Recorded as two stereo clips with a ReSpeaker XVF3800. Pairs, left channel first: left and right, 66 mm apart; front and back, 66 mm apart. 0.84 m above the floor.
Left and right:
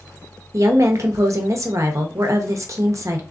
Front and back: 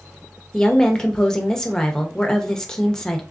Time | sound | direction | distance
0.5 | a woman speaking | 80° right | 0.8 m